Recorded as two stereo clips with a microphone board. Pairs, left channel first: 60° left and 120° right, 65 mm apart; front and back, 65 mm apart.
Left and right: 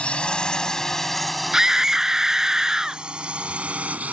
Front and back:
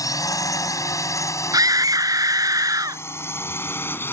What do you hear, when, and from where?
0.0 s a drone: 10° right; by 4.1 s 55° right
1.5 s a scream: 160° left